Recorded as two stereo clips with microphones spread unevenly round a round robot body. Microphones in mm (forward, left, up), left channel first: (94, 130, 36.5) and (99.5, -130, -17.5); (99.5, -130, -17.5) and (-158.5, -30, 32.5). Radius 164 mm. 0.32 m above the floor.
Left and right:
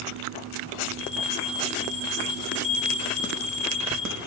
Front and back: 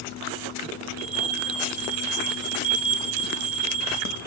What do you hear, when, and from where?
1.0 s a bell: 145° left, 5.5 m